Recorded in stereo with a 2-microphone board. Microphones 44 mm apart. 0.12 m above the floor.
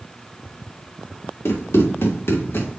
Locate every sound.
1.4 s running footsteps: 80° left, 3.5 m; by 2.8 s 70° left (ahead or behind), 3 m